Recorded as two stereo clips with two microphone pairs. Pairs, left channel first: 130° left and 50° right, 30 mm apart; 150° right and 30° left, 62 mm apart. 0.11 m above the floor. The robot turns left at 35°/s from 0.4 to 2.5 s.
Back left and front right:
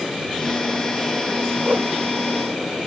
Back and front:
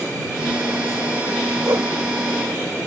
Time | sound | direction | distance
1.6 | a whoosh | 10° right | ?